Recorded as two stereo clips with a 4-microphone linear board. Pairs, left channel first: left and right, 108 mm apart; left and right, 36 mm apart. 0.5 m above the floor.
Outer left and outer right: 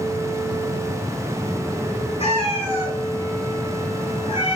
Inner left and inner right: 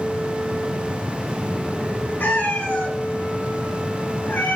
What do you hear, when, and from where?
2.2 s a cat meowing: 80° left, 1.9 m